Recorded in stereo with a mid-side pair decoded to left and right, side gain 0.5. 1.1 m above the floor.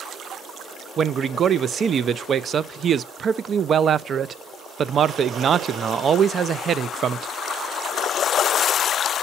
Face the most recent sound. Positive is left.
turn(degrees=-45)